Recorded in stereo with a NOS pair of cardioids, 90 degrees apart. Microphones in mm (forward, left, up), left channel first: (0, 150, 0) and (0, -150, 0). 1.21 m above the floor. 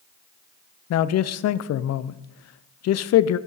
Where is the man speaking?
55° left, 0.5 m.